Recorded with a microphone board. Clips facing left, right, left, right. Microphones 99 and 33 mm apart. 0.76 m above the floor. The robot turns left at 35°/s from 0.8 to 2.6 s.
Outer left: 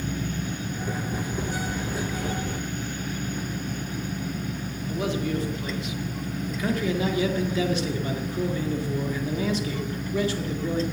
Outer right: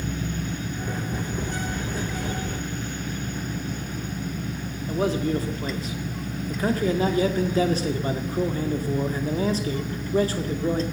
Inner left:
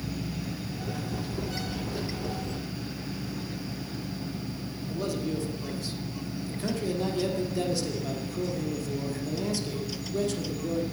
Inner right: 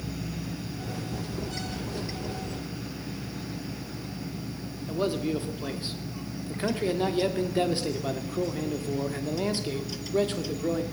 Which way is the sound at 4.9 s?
35° right (ahead or behind).